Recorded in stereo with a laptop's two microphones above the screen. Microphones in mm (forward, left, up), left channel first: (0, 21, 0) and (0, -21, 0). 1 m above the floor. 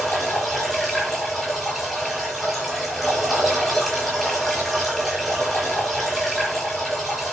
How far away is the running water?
About 8.5 m.